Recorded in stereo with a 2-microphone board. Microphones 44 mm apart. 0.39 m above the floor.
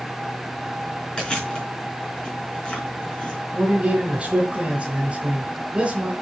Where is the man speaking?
15° right (ahead or behind), 3.5 m.